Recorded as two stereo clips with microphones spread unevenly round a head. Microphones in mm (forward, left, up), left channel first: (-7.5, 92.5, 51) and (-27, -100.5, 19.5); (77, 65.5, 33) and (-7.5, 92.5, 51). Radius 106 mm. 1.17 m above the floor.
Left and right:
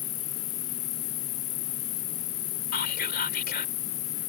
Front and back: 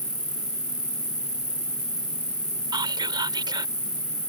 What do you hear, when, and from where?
0.0 s an insect: 85° left
2.7 s whispering: 130° left